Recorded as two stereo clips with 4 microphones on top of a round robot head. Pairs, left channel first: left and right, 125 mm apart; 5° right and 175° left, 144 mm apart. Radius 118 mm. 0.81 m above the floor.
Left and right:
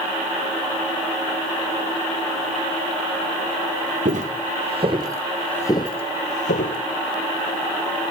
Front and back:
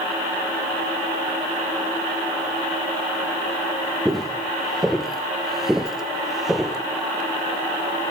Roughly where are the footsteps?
Right.